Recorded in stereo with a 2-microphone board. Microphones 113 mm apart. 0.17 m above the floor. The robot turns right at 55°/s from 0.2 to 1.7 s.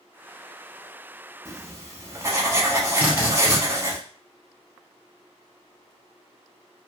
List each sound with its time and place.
1.4 s writing: 30° right (ahead or behind), 0.8 m
3.0 s a drill: 15° right (ahead or behind), 1.1 m